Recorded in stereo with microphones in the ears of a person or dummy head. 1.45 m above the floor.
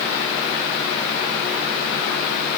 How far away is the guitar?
I don't hear a guitar.